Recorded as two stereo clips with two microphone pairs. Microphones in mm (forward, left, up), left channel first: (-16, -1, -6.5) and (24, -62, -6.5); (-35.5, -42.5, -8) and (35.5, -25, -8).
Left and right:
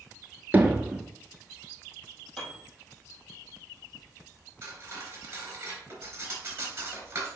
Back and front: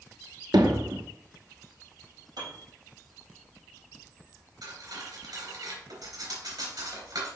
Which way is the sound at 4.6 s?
Straight ahead.